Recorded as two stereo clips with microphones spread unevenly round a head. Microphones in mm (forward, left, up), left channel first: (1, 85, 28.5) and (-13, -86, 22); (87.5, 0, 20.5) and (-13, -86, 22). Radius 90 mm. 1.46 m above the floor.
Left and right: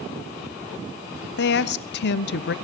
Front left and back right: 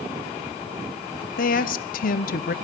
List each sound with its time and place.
1.4 s a woman speaking: 60° left, 0.6 m